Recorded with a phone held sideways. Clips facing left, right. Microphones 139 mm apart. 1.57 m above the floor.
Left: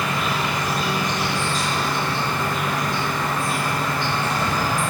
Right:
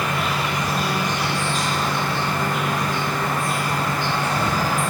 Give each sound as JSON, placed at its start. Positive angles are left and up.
{"t": 0.0, "sound": "an insect", "side_deg": -50, "distance_m": 1.3}